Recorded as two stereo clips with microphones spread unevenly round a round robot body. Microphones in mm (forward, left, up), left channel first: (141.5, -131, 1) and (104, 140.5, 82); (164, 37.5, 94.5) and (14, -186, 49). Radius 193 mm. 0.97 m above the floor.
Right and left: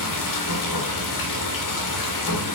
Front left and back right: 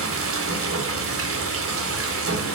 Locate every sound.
0.0 s running water: 85° right, 2.0 m